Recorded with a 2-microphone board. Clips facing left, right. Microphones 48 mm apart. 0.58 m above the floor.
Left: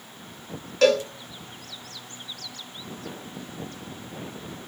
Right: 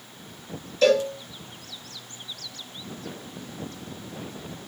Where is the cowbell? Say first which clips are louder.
Even; 85° left, 1.6 m.